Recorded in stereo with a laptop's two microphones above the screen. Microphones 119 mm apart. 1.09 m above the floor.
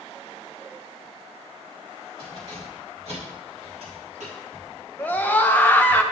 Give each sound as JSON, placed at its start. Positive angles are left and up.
{"t": 2.2, "sound": "keys jangling", "side_deg": -50, "distance_m": 3.5}
{"t": 5.0, "sound": "a scream", "side_deg": 15, "distance_m": 0.5}